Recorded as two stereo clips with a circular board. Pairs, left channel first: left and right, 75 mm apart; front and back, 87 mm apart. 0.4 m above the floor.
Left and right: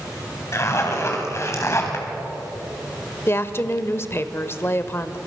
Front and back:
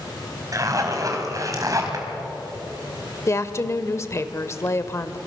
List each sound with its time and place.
0.5 s a zipper: 135° left, 3 m
3.3 s a woman speaking: 45° left, 1.1 m